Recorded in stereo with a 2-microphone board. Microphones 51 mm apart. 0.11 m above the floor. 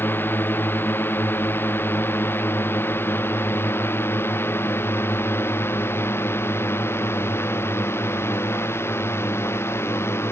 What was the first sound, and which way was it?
A drone, 45° left (ahead or behind).